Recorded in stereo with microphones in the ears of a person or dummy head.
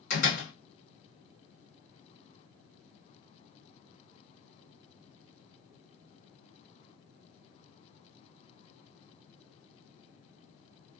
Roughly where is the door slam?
Left.